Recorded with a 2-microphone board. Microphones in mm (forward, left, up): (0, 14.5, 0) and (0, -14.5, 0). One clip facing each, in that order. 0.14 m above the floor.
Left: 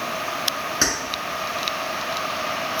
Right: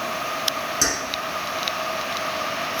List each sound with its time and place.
0.8 s keys jangling: 35° left (ahead or behind), 1.1 m